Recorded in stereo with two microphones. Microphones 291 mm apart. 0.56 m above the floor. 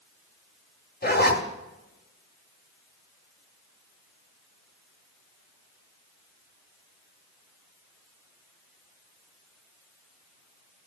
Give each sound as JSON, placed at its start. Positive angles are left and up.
{"t": 1.0, "sound": "a zipper", "side_deg": 35, "distance_m": 1.0}